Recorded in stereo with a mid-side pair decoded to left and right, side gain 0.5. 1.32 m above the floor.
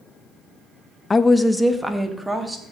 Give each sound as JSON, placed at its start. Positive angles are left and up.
{"t": 1.1, "sound": "a woman speaking", "azimuth_deg": 25, "distance_m": 0.7}